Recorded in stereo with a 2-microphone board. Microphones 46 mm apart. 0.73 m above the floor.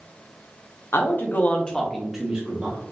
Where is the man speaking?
55° left (ahead or behind), 0.8 m; by 2.8 s 30° right (ahead or behind), 1.0 m.